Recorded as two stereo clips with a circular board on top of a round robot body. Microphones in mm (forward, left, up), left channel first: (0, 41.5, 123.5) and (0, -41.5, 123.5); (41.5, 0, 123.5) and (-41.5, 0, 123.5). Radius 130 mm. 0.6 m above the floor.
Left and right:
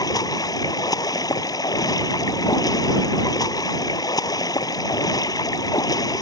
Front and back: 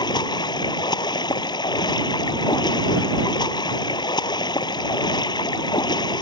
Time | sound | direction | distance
0.0 | running water | 40° left | ?